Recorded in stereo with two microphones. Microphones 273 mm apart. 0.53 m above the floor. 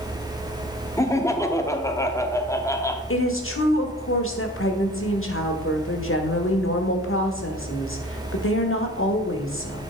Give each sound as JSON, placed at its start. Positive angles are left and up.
{"t": 1.0, "sound": "laughter", "side_deg": 10, "distance_m": 0.7}
{"t": 3.1, "sound": "a woman speaking", "side_deg": 50, "distance_m": 1.1}